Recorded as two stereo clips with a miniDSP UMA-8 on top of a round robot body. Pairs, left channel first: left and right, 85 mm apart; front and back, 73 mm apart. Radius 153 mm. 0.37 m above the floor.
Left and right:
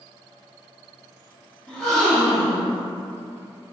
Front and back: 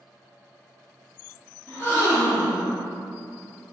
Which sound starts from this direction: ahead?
A gasp, at 1.7 s.